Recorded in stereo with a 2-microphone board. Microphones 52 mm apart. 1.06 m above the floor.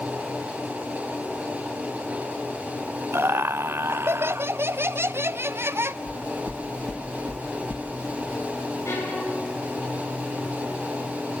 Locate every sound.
3.1 s laughter: 55° right (ahead or behind), 0.6 m
6.1 s knocking: 60° left (ahead or behind), 1.4 m
8.8 s a violin: 80° left, 9 m